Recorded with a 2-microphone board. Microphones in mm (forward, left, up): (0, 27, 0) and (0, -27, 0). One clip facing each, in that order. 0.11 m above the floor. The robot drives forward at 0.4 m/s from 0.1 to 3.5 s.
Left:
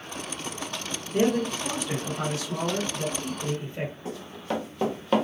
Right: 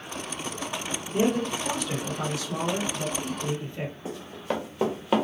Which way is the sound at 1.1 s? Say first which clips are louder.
Left 1 dB; 30° left (ahead or behind).